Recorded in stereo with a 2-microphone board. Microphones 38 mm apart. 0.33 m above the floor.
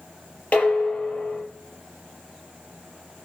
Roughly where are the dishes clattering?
Left.